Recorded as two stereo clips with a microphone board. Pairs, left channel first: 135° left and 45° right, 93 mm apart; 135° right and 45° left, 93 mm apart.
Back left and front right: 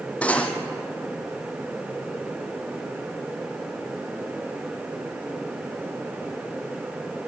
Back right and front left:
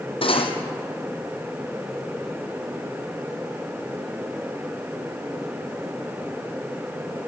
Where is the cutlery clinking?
150° right, 2.5 m.